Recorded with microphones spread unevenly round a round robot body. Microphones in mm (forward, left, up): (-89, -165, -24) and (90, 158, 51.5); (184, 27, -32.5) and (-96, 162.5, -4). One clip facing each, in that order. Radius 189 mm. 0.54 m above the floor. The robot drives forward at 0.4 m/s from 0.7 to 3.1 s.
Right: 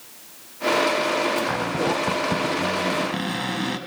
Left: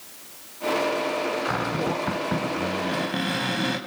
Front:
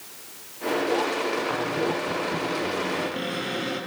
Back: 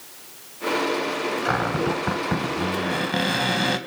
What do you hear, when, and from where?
1.4 s a cupboard door: 150° left, 3 m; by 3.8 s 155° left, 3.5 m